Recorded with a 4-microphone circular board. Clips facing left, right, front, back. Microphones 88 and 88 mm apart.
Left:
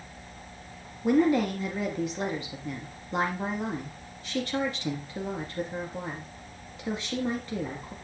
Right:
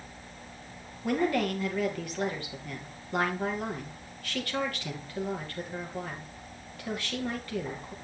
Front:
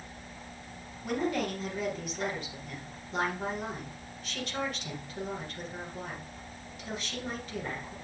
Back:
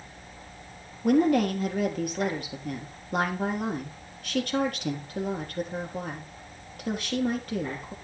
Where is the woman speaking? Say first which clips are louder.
Left 5 dB, back 9 dB; 155° left, 4 m.